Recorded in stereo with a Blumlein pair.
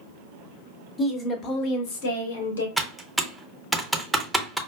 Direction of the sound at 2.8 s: 5° right.